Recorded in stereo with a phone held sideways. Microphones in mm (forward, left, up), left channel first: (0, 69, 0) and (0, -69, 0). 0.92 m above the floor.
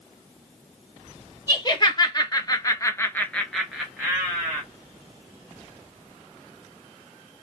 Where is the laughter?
35° left (ahead or behind), 1.2 m; by 4.6 s 20° right (ahead or behind), 1.0 m.